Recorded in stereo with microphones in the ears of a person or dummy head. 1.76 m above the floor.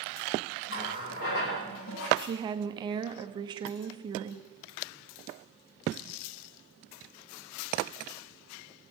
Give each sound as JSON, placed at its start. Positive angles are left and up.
{"t": 0.7, "sound": "a running tap", "side_deg": 50, "distance_m": 1.8}
{"t": 2.2, "sound": "a woman speaking", "side_deg": -25, "distance_m": 0.8}